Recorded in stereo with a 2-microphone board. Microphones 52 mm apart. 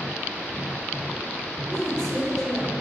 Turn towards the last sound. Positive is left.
turn(degrees=10)  # may be behind; listen again after turning